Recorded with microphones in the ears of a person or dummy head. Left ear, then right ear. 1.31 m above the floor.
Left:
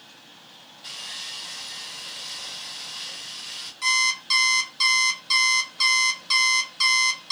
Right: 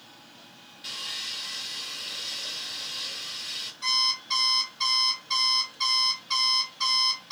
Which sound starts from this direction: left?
An alarm clock, at 3.8 s.